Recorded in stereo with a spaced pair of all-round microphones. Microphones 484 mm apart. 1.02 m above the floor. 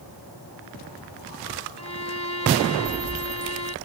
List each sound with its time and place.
1.8 s a violin: 35° right (ahead or behind)